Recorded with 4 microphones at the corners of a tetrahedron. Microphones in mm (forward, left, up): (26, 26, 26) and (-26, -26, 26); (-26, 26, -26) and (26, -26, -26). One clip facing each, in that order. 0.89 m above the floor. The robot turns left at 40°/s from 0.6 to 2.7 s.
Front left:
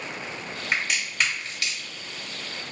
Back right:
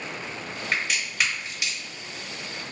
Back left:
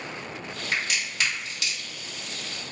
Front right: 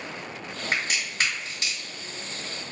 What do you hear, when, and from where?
0.7 s a crack: 35° right, 1.1 m; by 1.8 s 75° right, 1.1 m